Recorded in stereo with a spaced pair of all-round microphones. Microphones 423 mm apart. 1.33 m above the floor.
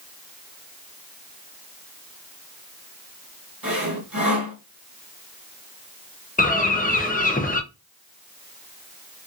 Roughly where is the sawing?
Right.